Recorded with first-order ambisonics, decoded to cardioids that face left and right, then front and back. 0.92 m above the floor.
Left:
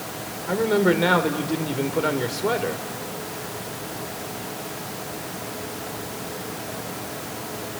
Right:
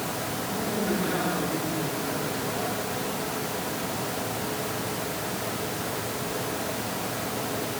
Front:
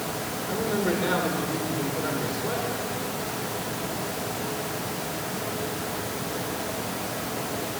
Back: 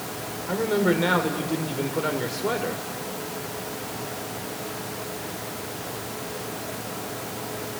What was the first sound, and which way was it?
A man speaking, 110° left.